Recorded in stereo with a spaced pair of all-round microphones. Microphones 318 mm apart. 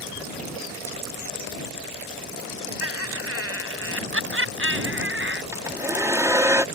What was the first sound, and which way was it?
Laughter, 45° right (ahead or behind).